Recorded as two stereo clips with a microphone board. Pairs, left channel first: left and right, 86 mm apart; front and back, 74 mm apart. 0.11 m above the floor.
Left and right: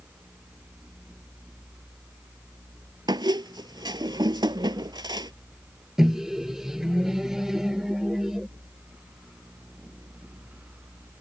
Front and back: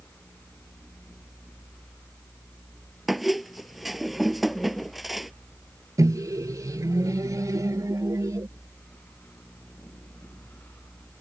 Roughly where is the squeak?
Right.